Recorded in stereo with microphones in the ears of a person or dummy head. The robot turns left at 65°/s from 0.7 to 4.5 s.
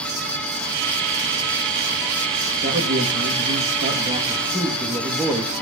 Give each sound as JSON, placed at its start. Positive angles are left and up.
{"t": 2.6, "sound": "a man speaking", "azimuth_deg": -45, "distance_m": 2.0}